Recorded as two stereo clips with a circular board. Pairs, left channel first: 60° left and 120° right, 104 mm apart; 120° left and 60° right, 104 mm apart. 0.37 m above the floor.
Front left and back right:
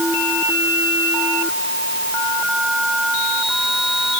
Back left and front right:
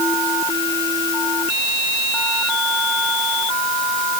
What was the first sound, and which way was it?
Only background noise.